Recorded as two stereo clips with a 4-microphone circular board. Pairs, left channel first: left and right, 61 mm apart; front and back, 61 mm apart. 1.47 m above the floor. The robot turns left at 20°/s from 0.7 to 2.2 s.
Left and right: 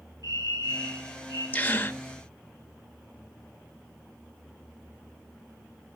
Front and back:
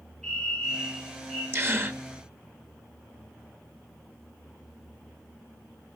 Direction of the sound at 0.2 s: 80° right.